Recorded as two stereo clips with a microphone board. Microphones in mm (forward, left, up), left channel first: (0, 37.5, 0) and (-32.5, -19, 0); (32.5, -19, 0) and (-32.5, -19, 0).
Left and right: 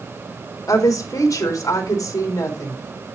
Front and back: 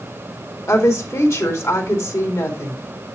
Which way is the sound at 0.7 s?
30° left.